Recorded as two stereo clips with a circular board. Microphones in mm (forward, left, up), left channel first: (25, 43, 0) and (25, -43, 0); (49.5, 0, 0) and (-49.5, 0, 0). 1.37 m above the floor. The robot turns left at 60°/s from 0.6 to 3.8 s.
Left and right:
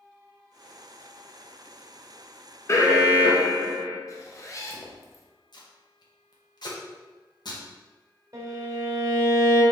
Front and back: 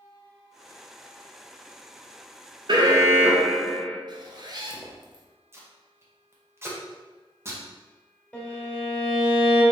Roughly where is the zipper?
Behind left.